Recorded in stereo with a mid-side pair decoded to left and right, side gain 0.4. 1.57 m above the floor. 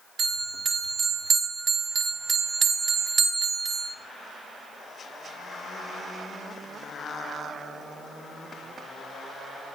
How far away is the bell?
About 1.8 m.